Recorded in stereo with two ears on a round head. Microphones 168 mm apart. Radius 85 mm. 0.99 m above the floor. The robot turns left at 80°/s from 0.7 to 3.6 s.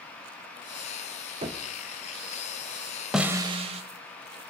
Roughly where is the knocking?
Right.